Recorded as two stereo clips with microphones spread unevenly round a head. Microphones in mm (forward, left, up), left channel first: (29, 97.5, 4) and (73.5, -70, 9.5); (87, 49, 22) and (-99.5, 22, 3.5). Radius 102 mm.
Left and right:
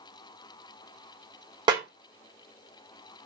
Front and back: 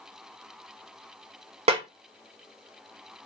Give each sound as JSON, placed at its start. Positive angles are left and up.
{"t": 1.7, "sound": "a snare drum", "azimuth_deg": -125, "distance_m": 0.5}